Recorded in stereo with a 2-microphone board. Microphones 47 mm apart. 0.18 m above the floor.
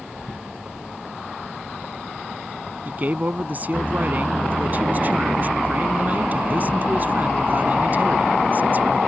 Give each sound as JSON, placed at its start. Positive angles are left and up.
{"t": 2.9, "sound": "a man speaking", "side_deg": -40}